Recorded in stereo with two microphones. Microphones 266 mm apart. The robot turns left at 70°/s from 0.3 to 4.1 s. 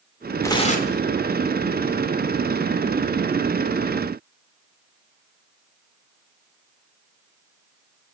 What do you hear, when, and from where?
0.4 s tearing paper: 170° left, 1.7 m; by 1.0 s 130° left, 1.7 m